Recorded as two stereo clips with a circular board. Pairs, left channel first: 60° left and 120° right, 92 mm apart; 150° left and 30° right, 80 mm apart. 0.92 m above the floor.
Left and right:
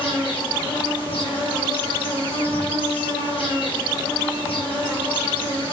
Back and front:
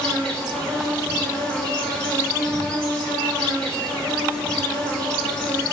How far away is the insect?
About 0.8 m.